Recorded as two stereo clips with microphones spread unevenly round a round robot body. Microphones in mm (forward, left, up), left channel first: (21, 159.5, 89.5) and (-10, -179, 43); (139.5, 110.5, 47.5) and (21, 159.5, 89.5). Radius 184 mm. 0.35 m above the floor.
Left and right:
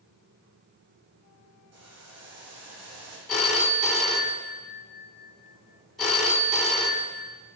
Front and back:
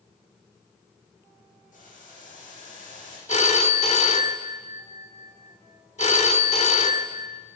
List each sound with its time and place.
1.7 s boiling: 50° right, 5.5 m
3.3 s a phone ringing: 5° right, 2 m